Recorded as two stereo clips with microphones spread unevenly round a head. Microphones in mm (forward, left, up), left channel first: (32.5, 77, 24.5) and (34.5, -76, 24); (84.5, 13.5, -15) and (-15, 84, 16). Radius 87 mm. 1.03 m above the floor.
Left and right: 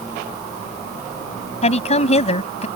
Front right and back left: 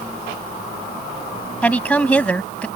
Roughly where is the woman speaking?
Ahead left.